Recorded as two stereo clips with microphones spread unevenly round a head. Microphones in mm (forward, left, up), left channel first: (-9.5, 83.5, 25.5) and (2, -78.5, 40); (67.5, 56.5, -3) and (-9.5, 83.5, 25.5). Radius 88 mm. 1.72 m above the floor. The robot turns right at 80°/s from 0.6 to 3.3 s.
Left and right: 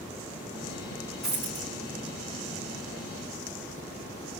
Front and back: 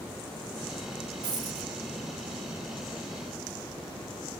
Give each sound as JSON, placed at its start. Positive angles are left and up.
{"t": 1.2, "sound": "a dropped coin", "azimuth_deg": -175, "distance_m": 4.0}